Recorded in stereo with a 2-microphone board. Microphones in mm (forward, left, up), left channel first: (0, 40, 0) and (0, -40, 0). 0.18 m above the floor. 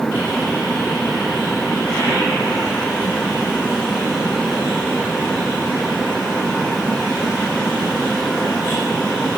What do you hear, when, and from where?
Only background noise.